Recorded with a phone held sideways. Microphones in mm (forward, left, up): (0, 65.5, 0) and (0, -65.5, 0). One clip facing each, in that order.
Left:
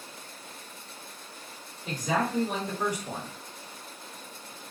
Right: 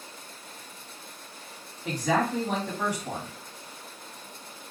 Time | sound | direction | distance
1.9 | a man speaking | 75° right (ahead or behind) | 1.2 m